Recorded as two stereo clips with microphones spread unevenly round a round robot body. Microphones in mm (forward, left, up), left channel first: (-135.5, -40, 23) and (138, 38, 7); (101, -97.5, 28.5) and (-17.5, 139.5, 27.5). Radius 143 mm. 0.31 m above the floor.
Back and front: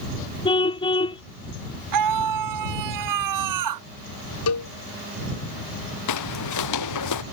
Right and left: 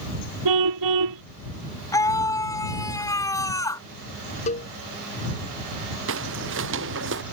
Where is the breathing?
I don't hear breathing.